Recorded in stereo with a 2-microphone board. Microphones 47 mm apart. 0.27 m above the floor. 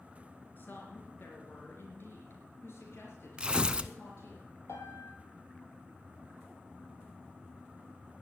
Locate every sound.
0.6 s a woman speaking: 45° left (ahead or behind), 4 m; by 4.4 s 70° left (ahead or behind), 4.5 m
3.4 s tearing paper: 20° right (ahead or behind), 0.7 m
4.7 s a piano: 80° left, 3.5 m